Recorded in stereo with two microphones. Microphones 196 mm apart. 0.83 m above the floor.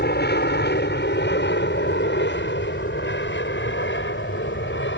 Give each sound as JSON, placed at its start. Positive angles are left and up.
{"t": 0.0, "sound": "an aircraft", "side_deg": 60}